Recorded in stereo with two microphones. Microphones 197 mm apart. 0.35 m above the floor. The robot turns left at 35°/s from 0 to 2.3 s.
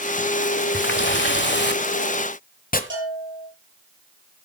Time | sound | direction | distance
0.7 | a running tap | 105° left | 1.3 m
2.9 | a bell | 75° right (ahead or behind) | 8.5 m